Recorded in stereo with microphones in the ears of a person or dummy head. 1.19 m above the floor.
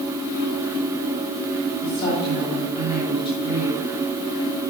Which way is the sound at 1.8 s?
50° left (ahead or behind).